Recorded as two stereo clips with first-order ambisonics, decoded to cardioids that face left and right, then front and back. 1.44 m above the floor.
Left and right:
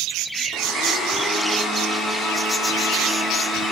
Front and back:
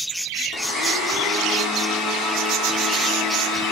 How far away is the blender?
About 4 m.